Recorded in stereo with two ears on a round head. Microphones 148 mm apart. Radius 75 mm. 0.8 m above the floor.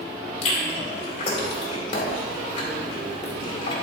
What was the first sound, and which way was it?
Chewing, 35° left (ahead or behind).